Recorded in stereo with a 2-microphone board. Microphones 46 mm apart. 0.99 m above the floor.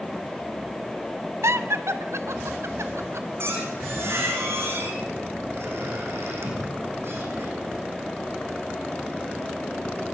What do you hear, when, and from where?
1.4 s laughter: 75° right (ahead or behind), 2 m; by 3.3 s 80° right, 4 m
3.4 s a squeak: 55° right (ahead or behind), 8.5 m